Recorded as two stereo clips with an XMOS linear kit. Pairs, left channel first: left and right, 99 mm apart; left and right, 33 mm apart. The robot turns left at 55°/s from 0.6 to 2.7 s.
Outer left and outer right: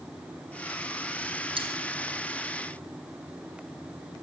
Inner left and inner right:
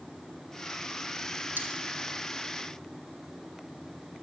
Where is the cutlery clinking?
60° right (ahead or behind), 2.5 m; by 1.7 s 65° right (ahead or behind), 2.5 m.